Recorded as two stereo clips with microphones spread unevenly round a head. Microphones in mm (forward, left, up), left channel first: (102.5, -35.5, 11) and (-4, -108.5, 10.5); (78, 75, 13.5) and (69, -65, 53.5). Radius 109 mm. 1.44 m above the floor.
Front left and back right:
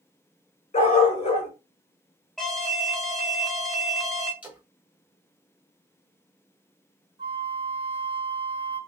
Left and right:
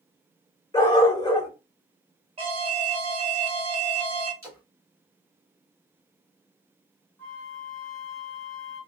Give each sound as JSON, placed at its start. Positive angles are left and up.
{"t": 0.7, "sound": "a dog barking", "azimuth_deg": 15, "distance_m": 1.4}
{"t": 2.4, "sound": "an alarm", "azimuth_deg": -55, "distance_m": 1.1}
{"t": 4.4, "sound": "a splash", "azimuth_deg": -70, "distance_m": 1.4}
{"t": 7.2, "sound": "a flute", "azimuth_deg": -170, "distance_m": 0.7}